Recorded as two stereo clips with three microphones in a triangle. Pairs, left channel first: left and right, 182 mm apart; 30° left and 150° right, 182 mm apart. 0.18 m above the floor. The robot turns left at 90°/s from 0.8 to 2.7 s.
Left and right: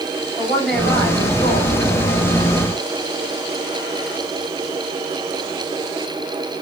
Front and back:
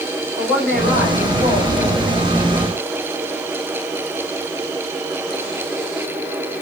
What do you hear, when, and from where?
0.4 s a woman speaking: 125° left, 3 m; by 2.2 s 5° right, 3 m